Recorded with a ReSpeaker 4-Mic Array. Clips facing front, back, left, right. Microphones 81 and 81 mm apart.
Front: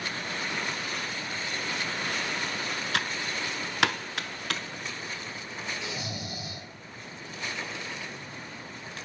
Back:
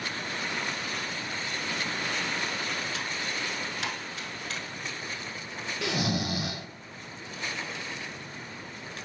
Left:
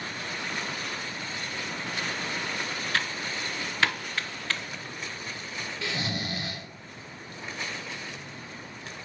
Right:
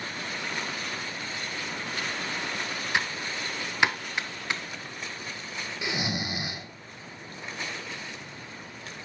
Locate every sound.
2.9 s typing on a keyboard: 20° right, 0.5 m
5.8 s snoring: 165° right, 0.6 m